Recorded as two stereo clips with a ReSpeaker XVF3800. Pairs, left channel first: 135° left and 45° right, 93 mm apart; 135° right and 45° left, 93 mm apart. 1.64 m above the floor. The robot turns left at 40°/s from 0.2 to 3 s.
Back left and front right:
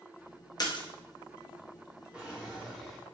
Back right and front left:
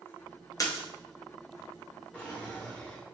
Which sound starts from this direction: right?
A drawer, at 2.1 s.